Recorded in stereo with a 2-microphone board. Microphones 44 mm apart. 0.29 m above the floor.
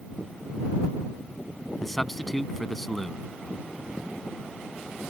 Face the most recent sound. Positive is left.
turn(degrees=5)  # may be behind; listen again after turning